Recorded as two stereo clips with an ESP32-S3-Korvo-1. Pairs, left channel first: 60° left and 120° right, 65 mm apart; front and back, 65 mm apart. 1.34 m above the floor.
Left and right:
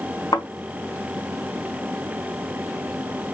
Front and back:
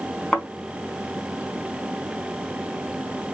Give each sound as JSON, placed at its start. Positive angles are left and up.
{"t": 0.3, "sound": "a thud", "azimuth_deg": 75, "distance_m": 3.0}